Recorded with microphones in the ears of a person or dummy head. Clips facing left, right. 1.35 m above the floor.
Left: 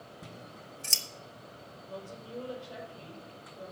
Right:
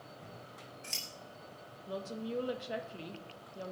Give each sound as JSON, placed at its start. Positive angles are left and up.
{"t": 0.2, "sound": "scissors", "side_deg": 55, "distance_m": 1.3}
{"t": 1.9, "sound": "a woman speaking", "side_deg": -75, "distance_m": 1.6}